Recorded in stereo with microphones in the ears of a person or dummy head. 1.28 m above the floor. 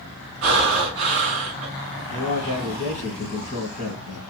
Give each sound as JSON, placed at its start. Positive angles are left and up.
{"t": 0.4, "sound": "breathing", "side_deg": -40, "distance_m": 1.1}
{"t": 2.1, "sound": "a man speaking", "side_deg": 50, "distance_m": 1.4}